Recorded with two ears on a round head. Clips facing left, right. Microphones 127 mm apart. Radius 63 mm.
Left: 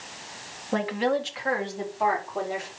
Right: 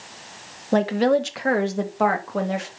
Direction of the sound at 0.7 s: 50° right (ahead or behind).